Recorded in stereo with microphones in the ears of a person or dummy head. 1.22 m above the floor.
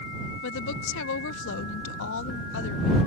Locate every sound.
0.4 s a woman speaking: 70° left (ahead or behind)